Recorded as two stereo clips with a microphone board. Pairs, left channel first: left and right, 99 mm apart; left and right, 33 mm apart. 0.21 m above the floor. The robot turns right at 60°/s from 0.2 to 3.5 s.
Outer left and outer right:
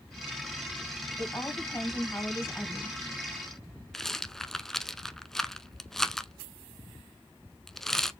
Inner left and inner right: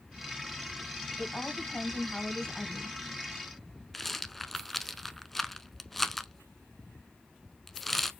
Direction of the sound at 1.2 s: 55° left.